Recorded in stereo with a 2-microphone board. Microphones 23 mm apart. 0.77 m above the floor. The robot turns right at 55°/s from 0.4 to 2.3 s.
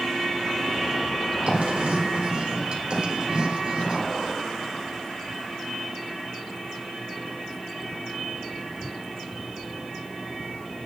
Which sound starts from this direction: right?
Writing, at 1.5 s.